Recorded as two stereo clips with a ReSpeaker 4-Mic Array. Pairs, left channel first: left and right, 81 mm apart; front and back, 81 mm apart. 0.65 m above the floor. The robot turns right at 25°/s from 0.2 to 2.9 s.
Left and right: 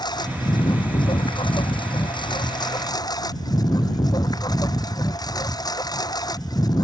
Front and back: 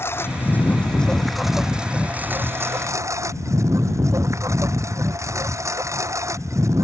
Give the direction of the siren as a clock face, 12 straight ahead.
I don't hear a siren.